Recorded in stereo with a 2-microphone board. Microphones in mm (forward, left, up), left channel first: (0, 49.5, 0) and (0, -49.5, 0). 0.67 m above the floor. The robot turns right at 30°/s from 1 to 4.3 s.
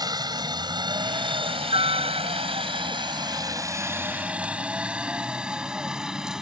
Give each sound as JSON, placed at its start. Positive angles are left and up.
{"t": 0.0, "sound": "a helicopter", "side_deg": -45}